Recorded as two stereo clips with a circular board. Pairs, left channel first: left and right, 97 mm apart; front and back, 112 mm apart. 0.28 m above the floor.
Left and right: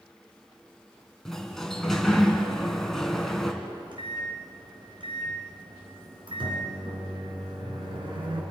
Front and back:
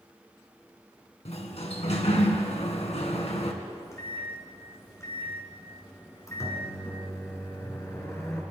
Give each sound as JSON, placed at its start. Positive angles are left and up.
{"t": 1.2, "sound": "a sliding door", "azimuth_deg": 5, "distance_m": 2.5}
{"t": 3.6, "sound": "a microwave", "azimuth_deg": -65, "distance_m": 4.0}